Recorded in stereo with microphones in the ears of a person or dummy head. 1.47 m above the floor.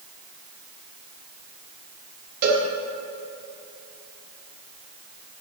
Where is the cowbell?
45° right (ahead or behind), 2.5 m.